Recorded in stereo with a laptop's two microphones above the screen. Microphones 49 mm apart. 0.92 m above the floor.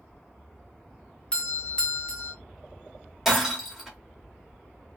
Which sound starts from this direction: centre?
Breaking glass, at 3.2 s.